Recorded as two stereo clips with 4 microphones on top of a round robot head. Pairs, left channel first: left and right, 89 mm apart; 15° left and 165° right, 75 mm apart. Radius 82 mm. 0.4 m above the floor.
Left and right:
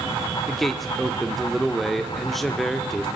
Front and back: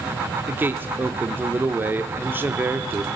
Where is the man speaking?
Straight behind, 1.0 m.